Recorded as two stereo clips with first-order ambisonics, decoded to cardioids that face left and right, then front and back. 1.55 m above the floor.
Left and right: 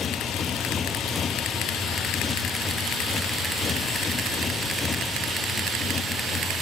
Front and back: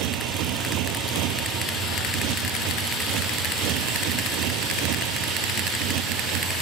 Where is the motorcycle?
160° left.